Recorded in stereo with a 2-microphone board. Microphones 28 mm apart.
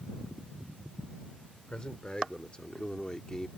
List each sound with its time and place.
1.7 s a man speaking: 35° left (ahead or behind); by 3.5 s 20° left (ahead or behind)